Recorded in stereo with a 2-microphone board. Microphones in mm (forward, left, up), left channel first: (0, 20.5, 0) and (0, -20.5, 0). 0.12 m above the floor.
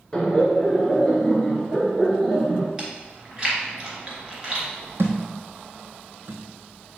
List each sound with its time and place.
0.1 s laughter: 20° left (ahead or behind), 1.5 m; by 2.7 s 5° left (ahead or behind), 2 m
2.8 s chewing: 25° right (ahead or behind), 1.9 m
5.0 s a thud: 70° right (ahead or behind), 1.4 m